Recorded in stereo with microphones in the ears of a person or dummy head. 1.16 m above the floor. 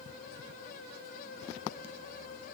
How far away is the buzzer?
No buzzer in this recording.